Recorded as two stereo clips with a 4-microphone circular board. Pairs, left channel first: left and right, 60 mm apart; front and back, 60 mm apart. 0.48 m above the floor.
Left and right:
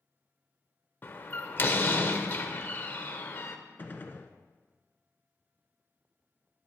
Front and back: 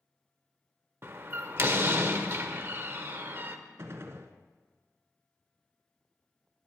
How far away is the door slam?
About 0.8 m.